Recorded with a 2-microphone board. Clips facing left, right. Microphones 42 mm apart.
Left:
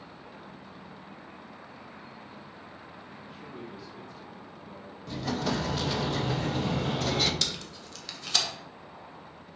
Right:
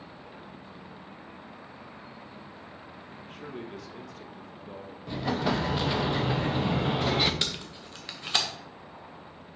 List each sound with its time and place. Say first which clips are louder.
3.2 s a man speaking: right 4 dB; 70° right (ahead or behind), 1.2 m
5.1 s an explosion: right 2 dB; 20° right (ahead or behind), 0.8 m
7.4 s tape being pulled: right 1 dB; 25° right (ahead or behind), 1.4 m